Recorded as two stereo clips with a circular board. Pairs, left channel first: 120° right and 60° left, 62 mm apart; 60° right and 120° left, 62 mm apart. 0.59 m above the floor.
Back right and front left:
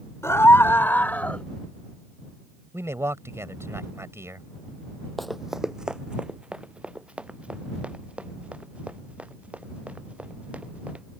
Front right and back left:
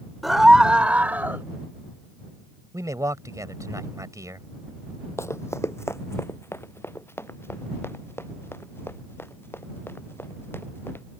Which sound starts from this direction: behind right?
A scream, at 0.2 s.